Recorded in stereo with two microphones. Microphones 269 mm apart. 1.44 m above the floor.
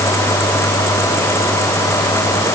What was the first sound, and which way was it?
Only background noise.